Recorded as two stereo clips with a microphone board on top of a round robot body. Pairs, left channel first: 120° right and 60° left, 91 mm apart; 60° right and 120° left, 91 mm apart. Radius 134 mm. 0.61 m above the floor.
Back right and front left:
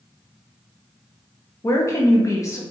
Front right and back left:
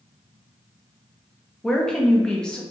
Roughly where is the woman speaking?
Behind right.